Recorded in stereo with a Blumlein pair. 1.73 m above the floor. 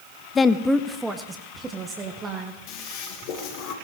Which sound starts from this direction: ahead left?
A toilet flushing, at 2.7 s.